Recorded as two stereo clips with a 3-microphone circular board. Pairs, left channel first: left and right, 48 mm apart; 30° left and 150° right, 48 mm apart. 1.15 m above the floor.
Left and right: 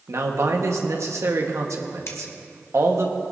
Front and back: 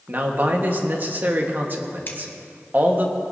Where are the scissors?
75° left, 1.5 m.